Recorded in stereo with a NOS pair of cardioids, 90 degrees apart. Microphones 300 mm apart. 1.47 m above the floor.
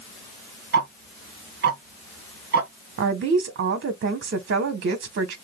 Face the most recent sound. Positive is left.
turn(degrees=-45)